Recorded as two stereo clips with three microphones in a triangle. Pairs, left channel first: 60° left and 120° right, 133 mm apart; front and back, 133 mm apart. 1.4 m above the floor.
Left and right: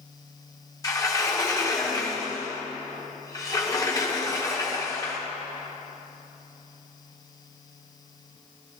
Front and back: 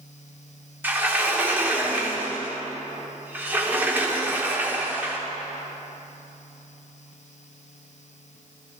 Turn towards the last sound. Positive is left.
turn(degrees=110)